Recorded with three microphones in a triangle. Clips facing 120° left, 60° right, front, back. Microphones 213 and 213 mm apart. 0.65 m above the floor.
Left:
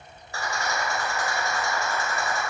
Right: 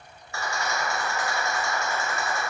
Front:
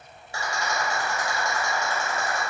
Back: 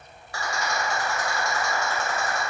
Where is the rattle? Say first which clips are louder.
Even, even; 65° left, 1.1 m.